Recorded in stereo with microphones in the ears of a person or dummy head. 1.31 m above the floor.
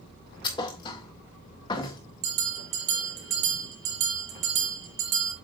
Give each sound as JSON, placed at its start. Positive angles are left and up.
{"t": 0.4, "sound": "a thud", "side_deg": 25, "distance_m": 1.3}
{"t": 2.2, "sound": "a bell", "side_deg": -70, "distance_m": 4.5}